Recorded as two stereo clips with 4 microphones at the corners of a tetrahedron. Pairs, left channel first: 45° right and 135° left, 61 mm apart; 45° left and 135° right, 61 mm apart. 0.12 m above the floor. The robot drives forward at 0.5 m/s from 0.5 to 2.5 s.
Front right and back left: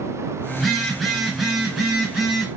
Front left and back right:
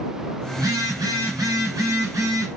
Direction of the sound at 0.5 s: 135° right.